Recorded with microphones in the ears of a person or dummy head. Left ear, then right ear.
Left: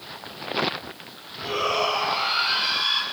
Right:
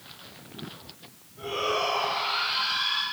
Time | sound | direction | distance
1.4 | a shout | 20° left (ahead or behind) | 9.5 m